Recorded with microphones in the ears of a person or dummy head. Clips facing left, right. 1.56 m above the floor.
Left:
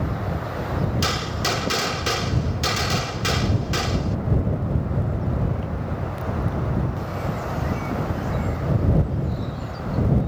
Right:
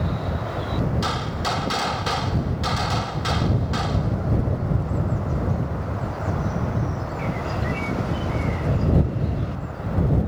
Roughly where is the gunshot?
Left.